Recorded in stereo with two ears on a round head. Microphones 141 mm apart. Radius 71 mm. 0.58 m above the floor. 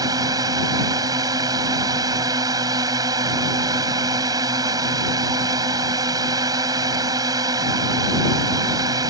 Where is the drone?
25° right (ahead or behind).